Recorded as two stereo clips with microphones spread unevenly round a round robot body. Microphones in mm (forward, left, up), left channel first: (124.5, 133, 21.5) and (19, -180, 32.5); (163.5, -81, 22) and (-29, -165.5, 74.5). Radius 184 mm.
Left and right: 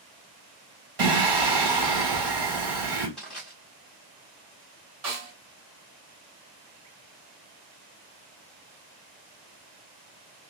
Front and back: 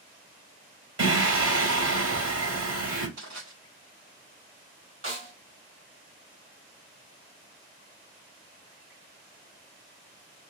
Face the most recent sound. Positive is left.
turn(degrees=-135)